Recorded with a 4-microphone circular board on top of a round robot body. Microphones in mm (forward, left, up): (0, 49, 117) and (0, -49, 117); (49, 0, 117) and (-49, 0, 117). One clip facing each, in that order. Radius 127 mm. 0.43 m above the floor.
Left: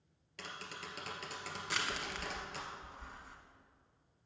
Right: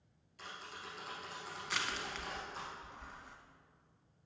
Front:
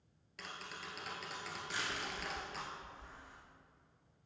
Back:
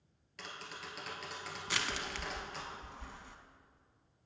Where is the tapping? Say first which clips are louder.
Left 2 dB, back 1 dB; 90° left, 1.7 m.